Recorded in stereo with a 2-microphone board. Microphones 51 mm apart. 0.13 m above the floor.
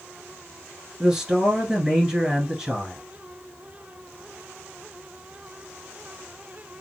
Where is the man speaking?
15° right (ahead or behind), 1.3 m.